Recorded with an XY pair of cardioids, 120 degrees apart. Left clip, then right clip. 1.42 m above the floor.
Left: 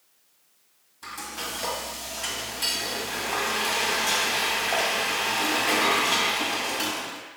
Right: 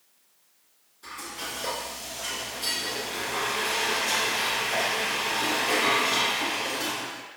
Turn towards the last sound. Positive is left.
turn(degrees=70)